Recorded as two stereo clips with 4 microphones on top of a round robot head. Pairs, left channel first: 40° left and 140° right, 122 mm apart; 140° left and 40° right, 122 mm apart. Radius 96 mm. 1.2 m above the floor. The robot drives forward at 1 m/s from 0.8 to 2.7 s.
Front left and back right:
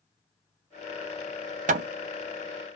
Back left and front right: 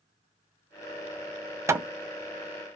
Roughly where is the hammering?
Right.